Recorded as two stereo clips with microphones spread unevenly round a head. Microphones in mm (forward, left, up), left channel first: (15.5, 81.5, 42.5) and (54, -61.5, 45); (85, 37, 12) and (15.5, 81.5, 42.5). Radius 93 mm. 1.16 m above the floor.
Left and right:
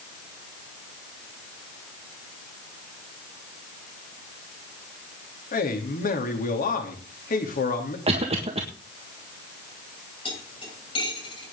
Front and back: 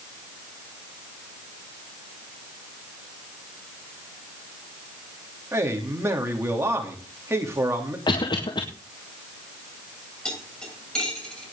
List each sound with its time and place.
5.5 s a man speaking: 85° left, 3 m
8.1 s a cough: 25° right, 1.7 m
10.2 s cutlery clinking: 50° left, 8 m